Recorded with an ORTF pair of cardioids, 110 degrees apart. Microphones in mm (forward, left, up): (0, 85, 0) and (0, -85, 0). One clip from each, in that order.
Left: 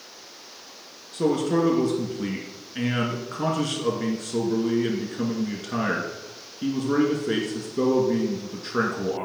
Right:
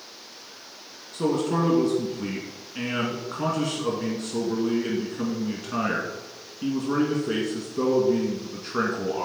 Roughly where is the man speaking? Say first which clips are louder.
Left 2 dB; ahead.